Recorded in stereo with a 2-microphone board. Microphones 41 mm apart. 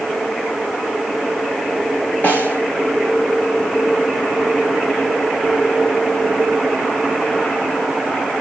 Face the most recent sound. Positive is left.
turn(degrees=50)  # may be behind; listen again after turning